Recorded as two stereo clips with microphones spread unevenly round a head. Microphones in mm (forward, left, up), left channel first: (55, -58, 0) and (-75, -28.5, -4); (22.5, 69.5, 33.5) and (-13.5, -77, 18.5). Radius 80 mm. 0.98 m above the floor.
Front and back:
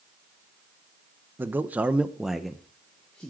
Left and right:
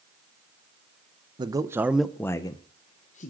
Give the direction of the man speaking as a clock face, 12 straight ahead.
4 o'clock.